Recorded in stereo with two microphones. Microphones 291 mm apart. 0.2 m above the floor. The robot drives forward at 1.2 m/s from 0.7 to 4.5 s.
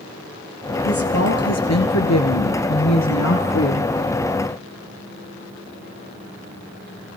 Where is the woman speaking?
50° left (ahead or behind), 3.5 m; by 3.9 s 55° left (ahead or behind), 3 m.